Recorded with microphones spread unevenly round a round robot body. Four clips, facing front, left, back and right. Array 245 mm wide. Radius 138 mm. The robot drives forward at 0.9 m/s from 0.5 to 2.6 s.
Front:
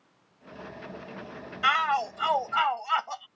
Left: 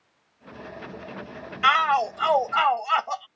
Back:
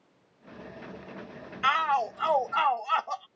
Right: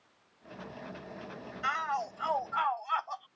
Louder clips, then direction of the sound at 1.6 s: Left 12 dB, even; 85° left.